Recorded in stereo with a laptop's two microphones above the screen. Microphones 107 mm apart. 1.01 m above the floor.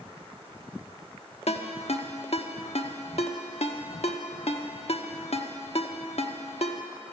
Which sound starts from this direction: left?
A ringtone, at 1.5 s.